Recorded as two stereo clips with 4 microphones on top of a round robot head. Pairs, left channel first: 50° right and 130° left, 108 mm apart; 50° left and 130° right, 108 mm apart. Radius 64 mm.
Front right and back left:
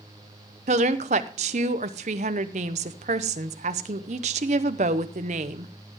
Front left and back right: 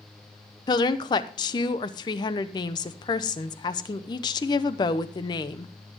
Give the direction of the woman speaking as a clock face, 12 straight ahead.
9 o'clock.